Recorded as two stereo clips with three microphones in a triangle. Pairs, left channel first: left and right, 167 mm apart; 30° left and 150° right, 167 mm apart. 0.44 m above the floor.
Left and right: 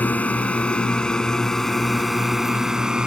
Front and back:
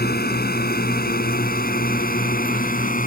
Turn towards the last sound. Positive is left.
turn(degrees=-5)